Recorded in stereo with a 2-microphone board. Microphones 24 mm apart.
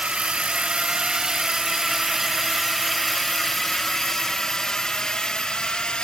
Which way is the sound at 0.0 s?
50° right (ahead or behind).